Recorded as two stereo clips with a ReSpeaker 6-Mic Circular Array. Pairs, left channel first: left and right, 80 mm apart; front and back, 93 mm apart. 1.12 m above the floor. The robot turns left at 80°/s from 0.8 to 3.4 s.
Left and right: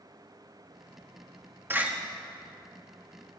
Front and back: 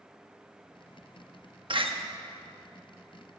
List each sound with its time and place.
1.7 s a door slam: 155° right, 0.8 m; by 1.9 s 170° right, 0.8 m